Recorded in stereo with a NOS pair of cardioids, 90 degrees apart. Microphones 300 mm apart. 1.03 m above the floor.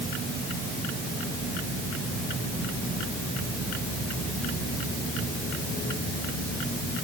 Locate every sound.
Only background noise.